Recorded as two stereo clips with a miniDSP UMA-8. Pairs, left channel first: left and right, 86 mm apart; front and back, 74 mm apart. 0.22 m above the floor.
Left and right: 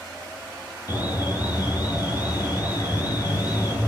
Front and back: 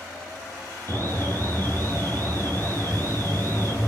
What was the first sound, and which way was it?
An alarm, 50° left.